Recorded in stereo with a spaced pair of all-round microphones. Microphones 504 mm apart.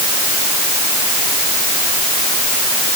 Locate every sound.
Only background noise.